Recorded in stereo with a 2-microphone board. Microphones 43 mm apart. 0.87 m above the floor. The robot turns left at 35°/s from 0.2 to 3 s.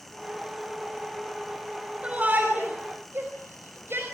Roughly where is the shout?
Right.